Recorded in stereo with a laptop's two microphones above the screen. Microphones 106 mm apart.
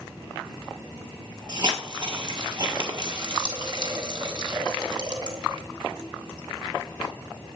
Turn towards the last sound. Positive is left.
turn(degrees=-45)  # may be behind; listen again after turning